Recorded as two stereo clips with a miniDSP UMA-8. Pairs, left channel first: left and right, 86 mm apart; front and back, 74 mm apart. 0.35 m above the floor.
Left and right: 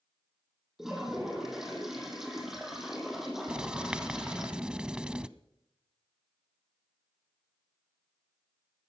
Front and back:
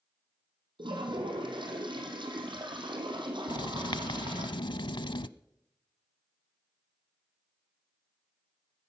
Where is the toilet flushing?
175° right, 3 m.